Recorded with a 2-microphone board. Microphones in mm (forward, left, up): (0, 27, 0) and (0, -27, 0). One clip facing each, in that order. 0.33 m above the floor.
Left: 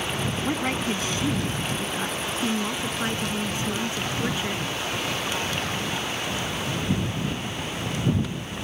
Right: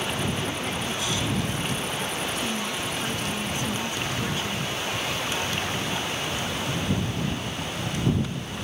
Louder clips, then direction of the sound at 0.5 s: Left 4 dB; 40° left (ahead or behind).